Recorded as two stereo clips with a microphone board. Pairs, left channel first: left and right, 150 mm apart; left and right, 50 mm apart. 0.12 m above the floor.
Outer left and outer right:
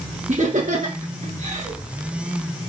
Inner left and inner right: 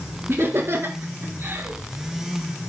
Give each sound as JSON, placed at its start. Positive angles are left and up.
{"t": 0.3, "sound": "laughter", "side_deg": -50, "distance_m": 1.5}